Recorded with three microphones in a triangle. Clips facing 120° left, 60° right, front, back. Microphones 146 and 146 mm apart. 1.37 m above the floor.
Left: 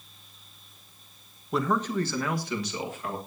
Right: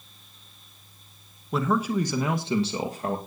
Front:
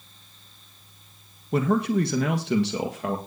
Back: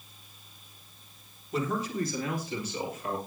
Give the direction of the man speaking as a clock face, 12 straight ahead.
11 o'clock.